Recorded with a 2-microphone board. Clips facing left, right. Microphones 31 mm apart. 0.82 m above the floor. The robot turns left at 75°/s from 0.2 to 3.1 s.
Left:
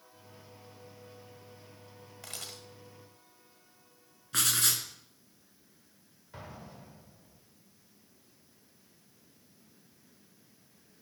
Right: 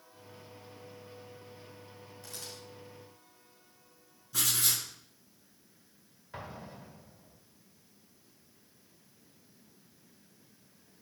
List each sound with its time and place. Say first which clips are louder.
2.2 s a camera shutter: left 2 dB; 80° left, 1.4 m; by 2.6 s 65° left (ahead or behind), 1.4 m
4.3 s writing: left 2 dB; 50° left (ahead or behind), 1.5 m
6.3 s an explosion: right 3 dB; 20° right (ahead or behind), 1.7 m